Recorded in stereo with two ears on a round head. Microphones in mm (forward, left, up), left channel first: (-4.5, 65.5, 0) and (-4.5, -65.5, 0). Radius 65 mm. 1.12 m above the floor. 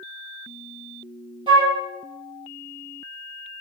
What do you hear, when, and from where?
1.5 s a flute: 35° right (ahead or behind), 0.9 m